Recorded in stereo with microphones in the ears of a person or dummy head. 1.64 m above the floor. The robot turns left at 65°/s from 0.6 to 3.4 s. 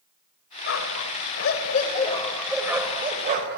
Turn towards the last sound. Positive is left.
turn(degrees=-55)  # may be behind; listen again after turning